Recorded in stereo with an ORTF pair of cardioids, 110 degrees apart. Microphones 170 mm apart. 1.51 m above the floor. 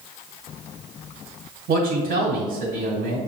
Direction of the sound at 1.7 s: 60° right.